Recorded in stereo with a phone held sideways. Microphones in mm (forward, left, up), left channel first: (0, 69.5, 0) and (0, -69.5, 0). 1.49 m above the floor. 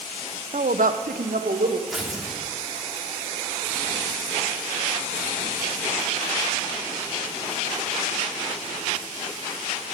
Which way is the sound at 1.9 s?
Centre (ahead or behind).